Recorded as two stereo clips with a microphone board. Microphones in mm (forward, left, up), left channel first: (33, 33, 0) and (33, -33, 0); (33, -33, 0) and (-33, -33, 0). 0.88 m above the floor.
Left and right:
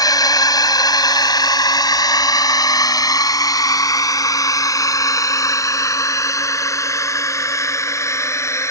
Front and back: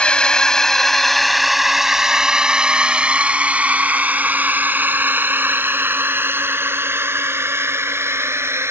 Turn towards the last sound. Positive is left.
turn(degrees=135)